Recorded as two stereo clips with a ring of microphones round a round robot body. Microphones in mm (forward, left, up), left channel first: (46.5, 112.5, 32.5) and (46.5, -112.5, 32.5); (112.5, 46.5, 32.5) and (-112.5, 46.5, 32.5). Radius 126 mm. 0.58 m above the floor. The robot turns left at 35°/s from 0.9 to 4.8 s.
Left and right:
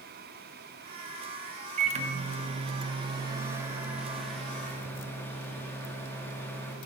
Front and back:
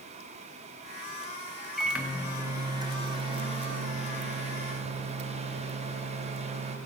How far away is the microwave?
About 0.9 m.